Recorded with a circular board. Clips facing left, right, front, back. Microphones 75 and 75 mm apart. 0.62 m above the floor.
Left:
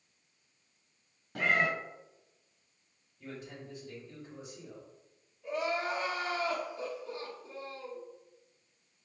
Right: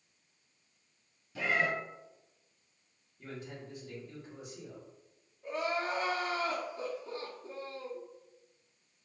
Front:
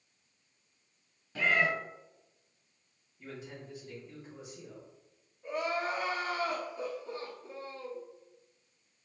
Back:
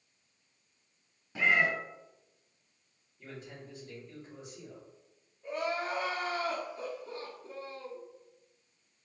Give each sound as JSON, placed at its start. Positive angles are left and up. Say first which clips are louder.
{"t": 1.4, "sound": "a cat meowing", "louder": "left 2 dB, back 1 dB", "azimuth_deg": 105, "distance_m": 0.9}
{"t": 3.2, "sound": "a man speaking", "louder": "even, front 1 dB", "azimuth_deg": -85, "distance_m": 2.0}
{"t": 5.4, "sound": "crying", "louder": "left 1 dB, front 1 dB", "azimuth_deg": -80, "distance_m": 1.3}